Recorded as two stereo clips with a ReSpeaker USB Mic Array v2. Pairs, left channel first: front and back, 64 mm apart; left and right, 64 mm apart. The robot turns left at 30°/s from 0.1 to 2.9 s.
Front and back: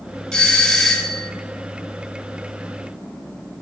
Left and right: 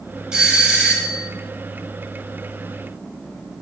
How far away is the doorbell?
About 1.4 m.